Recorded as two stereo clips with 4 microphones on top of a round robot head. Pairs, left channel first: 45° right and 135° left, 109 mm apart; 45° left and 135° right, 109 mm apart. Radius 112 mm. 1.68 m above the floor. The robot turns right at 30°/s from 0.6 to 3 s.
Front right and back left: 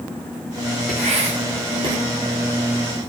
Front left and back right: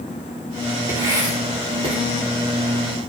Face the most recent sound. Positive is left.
turn(degrees=-145)